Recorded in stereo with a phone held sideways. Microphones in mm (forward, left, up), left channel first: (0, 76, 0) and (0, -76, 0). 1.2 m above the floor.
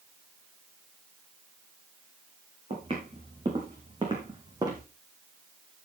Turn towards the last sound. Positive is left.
turn(degrees=-25)  # may be behind; listen again after turning